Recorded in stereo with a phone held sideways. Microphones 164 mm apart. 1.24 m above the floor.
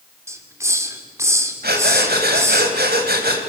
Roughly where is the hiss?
Centre.